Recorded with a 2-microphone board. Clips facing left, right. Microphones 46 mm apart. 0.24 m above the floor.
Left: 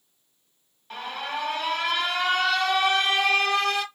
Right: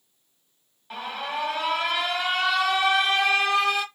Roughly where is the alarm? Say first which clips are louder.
Right 1 dB; centre.